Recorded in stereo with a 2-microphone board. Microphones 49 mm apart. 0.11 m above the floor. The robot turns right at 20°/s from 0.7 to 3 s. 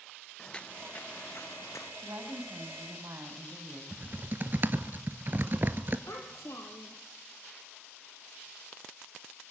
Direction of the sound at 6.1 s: 70° left (ahead or behind).